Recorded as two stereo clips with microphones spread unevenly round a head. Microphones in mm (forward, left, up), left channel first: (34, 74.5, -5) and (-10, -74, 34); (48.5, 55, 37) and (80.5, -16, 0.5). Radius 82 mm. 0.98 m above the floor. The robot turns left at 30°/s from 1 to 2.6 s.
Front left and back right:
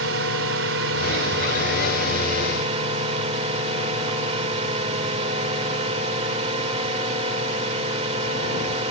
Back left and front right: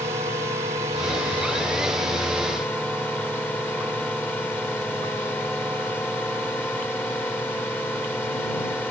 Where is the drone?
115° right; by 8.9 s 165° right.